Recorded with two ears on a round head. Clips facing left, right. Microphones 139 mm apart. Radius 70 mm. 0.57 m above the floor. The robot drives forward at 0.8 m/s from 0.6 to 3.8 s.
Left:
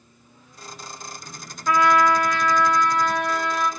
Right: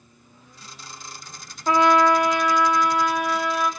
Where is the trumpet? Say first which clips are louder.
Right 1 dB; 25° right (ahead or behind), 0.6 m; by 3.7 s 5° right (ahead or behind), 1.9 m.